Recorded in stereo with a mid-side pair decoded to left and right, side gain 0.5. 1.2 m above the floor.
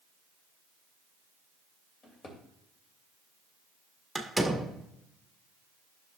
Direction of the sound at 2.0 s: 45° left.